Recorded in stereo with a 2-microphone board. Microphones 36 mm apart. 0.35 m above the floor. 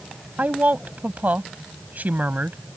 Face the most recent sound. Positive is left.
turn(degrees=-55)  # may be behind; listen again after turning